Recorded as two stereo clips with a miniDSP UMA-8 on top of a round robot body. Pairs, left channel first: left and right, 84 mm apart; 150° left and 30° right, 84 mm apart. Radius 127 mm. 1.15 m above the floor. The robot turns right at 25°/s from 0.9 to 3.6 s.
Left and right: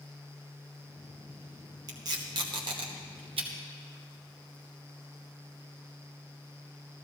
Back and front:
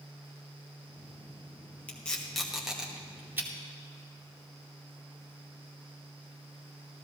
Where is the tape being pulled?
135° right, 1.2 m; by 3.5 s 95° right, 1.2 m.